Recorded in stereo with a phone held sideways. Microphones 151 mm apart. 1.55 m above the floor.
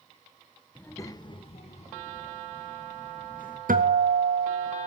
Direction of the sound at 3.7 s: 75° right (ahead or behind).